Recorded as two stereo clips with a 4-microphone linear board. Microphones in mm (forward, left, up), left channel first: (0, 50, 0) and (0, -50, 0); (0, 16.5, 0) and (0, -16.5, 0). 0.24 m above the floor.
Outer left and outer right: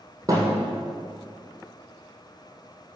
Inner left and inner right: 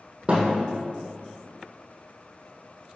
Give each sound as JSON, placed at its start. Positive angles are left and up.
{"t": 0.3, "sound": "a thud", "side_deg": -35, "distance_m": 3.0}